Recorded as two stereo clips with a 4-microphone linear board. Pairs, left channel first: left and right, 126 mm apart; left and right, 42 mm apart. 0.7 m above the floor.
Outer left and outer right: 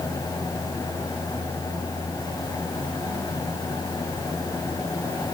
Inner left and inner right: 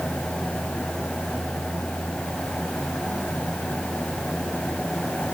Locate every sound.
Only background noise.